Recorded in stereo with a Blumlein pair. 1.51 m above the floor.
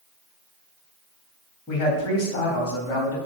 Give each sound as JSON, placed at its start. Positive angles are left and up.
{"t": 1.7, "sound": "a man speaking", "azimuth_deg": 30, "distance_m": 3.0}